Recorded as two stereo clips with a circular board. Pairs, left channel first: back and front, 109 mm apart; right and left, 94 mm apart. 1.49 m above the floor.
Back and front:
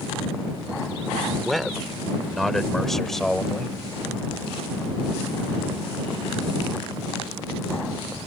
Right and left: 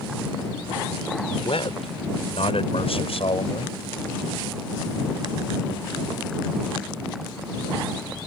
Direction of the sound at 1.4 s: 90° right.